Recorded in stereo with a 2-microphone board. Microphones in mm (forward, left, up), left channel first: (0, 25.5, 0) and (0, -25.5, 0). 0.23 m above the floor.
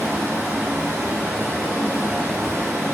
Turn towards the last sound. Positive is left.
turn(degrees=-40)  # may be behind; listen again after turning